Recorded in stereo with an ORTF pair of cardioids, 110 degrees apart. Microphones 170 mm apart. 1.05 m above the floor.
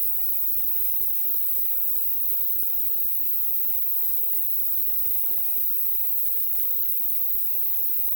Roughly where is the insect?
Ahead right.